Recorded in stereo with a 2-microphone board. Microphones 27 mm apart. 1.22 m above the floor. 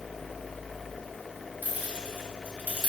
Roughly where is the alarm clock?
I don't hear an alarm clock.